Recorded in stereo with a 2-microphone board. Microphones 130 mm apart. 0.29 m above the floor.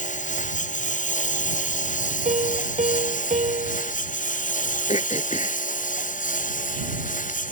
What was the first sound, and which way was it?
A lawn mower, 75° left (ahead or behind).